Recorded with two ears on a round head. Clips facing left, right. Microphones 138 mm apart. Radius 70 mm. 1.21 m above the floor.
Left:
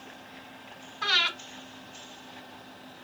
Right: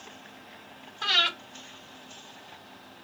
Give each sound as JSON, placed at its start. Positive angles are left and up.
{"t": 1.0, "sound": "breathing", "side_deg": -35, "distance_m": 3.0}